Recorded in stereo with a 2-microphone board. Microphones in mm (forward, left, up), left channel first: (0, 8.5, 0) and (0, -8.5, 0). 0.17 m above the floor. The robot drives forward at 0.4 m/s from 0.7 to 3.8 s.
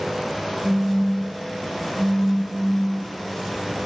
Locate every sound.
0.6 s a phone buzzing: 20° left (ahead or behind), 1.8 m; by 3.0 s 15° left (ahead or behind), 2.5 m